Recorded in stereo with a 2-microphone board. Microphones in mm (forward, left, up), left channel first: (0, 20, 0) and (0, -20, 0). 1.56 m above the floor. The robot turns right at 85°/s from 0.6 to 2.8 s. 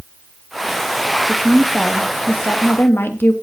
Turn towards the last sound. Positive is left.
turn(degrees=95)